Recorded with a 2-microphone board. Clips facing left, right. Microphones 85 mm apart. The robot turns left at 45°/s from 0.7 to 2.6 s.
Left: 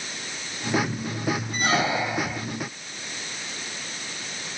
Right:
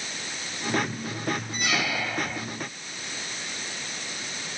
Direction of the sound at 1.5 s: 45° left.